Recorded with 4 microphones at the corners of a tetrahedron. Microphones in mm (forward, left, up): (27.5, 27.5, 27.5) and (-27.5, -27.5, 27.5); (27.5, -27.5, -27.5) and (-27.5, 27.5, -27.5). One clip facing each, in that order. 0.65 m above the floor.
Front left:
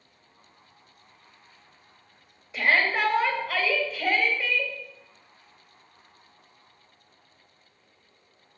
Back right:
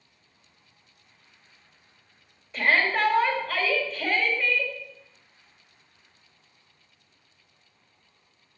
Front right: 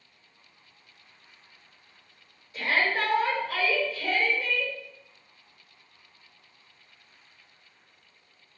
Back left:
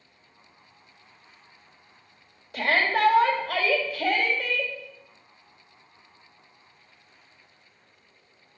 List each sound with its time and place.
2.5 s a shout: 130° left, 3.5 m